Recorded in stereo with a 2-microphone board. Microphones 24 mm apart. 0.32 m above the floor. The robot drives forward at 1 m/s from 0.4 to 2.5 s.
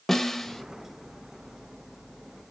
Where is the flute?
No flute in this recording.